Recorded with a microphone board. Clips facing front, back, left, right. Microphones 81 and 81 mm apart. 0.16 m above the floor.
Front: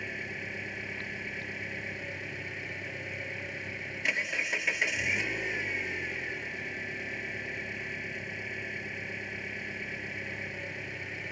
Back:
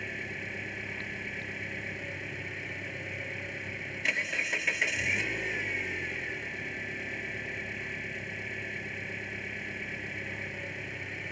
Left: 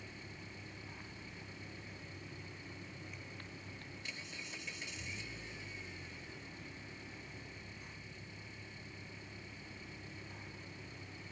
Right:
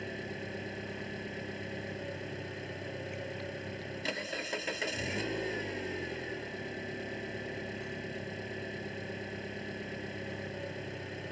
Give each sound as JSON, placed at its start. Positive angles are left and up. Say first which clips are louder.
{"t": 0.0, "sound": "an engine running", "louder": "even, right 12 dB", "azimuth_deg": -85}